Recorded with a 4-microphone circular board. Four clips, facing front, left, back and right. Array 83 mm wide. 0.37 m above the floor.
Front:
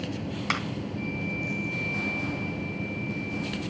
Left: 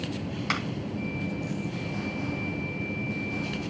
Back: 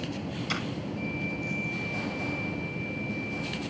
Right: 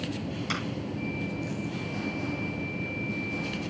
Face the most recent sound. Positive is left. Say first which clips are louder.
# left 4 dB, front 4 dB
turn(degrees=35)